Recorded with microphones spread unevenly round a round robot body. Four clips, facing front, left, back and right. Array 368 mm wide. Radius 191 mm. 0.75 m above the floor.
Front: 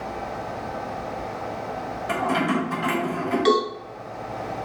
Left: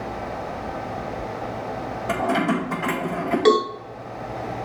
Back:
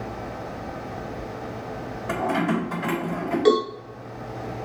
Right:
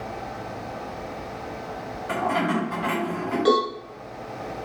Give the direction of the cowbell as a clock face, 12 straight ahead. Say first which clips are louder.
Left 3 dB, back 2 dB; 9 o'clock.